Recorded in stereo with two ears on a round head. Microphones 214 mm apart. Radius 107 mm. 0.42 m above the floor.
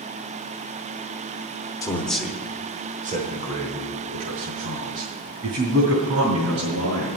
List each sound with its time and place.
1.8 s a man speaking: 15° left (ahead or behind), 1.0 m; by 7.1 s 60° right (ahead or behind), 3.5 m